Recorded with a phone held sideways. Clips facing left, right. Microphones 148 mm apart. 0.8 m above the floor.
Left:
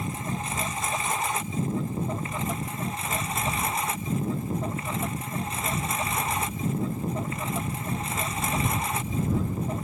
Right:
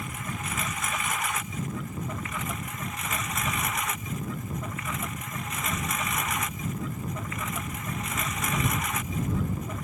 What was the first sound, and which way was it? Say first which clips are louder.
A lawn mower: left 4 dB; 30° left (ahead or behind).